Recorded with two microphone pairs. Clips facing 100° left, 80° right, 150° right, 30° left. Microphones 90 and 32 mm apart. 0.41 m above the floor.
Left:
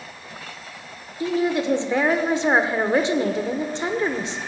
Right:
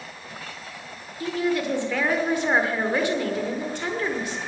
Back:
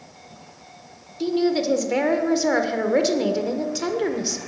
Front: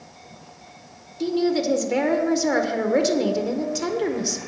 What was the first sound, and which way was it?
A woman speaking, 125° left.